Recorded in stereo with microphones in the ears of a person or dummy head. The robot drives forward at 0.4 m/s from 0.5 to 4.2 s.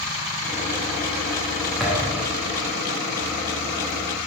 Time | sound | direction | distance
1.8 | a thud | centre (ahead or behind) | 1.1 m